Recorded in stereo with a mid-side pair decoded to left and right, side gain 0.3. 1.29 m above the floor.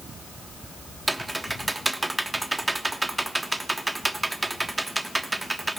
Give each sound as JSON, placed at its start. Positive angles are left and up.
{"t": 1.1, "sound": "typing on a keyboard", "azimuth_deg": -15, "distance_m": 1.1}